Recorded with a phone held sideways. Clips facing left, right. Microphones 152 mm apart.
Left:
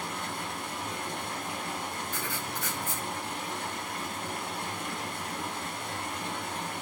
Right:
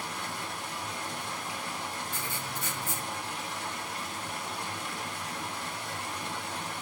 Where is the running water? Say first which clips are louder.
Left 2 dB; 55° left (ahead or behind), 3.5 m.